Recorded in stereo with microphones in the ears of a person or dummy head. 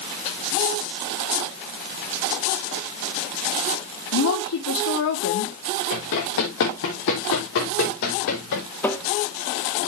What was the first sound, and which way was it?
A woman speaking, 75° left (ahead or behind).